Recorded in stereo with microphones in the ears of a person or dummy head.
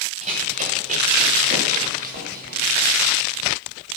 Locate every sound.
0.2 s running footsteps: 35° right (ahead or behind), 6.5 m; by 3.1 s 50° right (ahead or behind), 5 m